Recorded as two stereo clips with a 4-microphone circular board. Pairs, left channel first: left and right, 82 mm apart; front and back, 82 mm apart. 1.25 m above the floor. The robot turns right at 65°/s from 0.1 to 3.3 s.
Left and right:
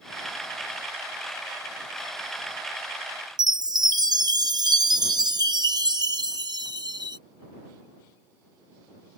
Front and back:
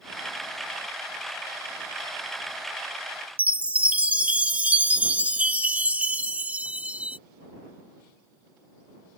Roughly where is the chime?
Right.